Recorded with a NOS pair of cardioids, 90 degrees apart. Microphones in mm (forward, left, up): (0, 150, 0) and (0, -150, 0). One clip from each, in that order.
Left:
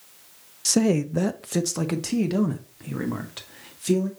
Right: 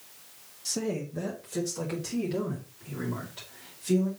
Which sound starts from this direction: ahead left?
A man speaking, at 0.7 s.